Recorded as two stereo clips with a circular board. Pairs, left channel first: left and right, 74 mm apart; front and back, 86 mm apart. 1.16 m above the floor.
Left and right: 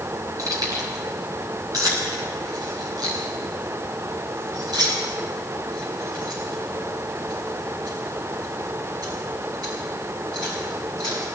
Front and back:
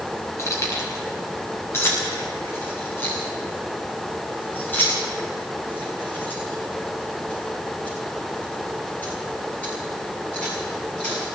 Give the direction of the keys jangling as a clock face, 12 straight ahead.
2 o'clock.